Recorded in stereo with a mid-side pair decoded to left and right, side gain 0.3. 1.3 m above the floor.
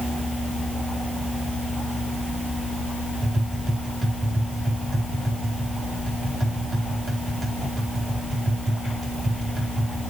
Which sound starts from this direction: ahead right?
Tapping, at 3.2 s.